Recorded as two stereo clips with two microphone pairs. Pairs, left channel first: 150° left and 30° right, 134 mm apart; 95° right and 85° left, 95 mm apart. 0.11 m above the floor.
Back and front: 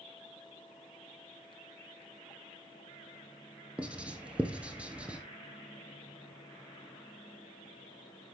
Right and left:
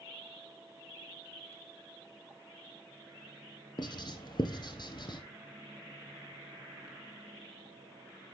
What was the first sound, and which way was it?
Writing, 105° right.